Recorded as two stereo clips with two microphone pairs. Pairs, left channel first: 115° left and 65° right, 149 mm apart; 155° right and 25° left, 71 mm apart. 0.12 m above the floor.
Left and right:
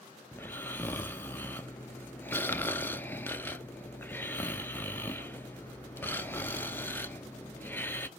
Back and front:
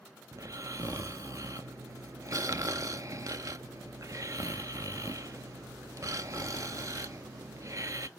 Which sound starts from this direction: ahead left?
Snoring, at 0.3 s.